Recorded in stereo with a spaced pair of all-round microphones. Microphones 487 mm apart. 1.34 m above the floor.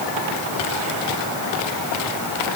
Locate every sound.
Only background noise.